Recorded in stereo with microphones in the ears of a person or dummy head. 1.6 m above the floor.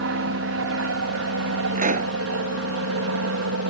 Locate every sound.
0.0 s an aircraft: 60° right (ahead or behind); by 3.7 s 65° right (ahead or behind)
1.8 s a pop: 40° right (ahead or behind)